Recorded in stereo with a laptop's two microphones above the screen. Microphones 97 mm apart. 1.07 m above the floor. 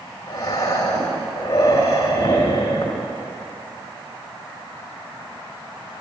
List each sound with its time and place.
0.3 s breathing: 35° left (ahead or behind), 2 m